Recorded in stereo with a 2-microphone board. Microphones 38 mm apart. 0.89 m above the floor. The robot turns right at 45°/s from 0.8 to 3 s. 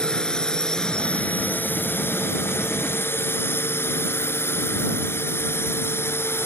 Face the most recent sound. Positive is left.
turn(degrees=85)